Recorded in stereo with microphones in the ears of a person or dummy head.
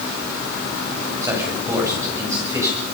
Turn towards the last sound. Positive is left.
turn(degrees=-15)  # may be behind; listen again after turning